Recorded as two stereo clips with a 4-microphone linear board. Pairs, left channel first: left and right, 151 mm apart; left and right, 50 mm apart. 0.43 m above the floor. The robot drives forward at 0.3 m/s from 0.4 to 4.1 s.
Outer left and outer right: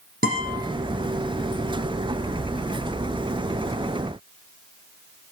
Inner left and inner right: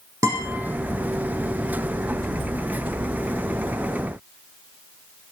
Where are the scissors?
No scissors in this recording.